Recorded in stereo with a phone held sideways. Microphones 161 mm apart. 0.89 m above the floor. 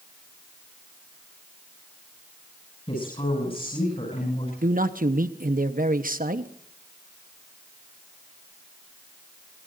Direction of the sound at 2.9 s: 35° left (ahead or behind).